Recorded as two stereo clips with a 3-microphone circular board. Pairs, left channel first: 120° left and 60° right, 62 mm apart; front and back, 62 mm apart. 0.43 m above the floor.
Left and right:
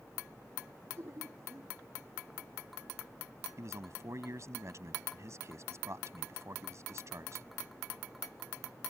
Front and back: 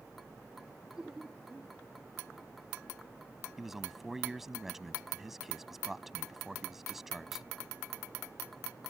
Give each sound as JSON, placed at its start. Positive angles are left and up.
{"t": 1.0, "sound": "laughter", "azimuth_deg": -100}
{"t": 3.6, "sound": "a man speaking", "azimuth_deg": -95}